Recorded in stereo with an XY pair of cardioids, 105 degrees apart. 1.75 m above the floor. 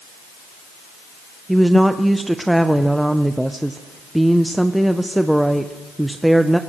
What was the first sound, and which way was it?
A woman speaking, 5° right.